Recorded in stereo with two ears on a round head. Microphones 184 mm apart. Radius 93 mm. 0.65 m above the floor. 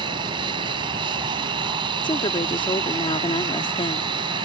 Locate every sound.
0.0 s an aircraft: 25° right (ahead or behind)
2.0 s a woman speaking: 25° left (ahead or behind)